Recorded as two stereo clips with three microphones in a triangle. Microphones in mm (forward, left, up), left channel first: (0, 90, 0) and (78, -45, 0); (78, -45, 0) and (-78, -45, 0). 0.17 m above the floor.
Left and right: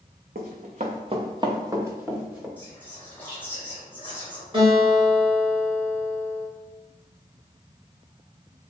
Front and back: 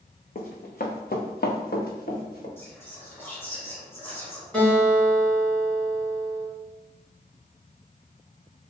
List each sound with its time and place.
0.3 s running footsteps: 35° right, 0.9 m; by 2.5 s 25° left, 1.4 m
2.6 s whispering: 55° left, 1.7 m
4.5 s a guitar: 80° right, 1.8 m